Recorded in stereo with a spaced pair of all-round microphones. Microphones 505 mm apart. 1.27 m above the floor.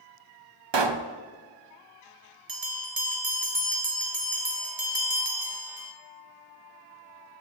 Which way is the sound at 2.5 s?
45° right (ahead or behind).